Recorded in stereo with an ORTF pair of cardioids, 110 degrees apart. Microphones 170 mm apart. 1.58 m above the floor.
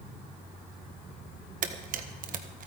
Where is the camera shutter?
50° right, 1.3 m.